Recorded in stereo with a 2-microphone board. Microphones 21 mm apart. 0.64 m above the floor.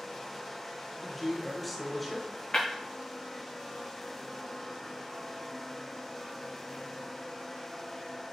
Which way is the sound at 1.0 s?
5° left (ahead or behind).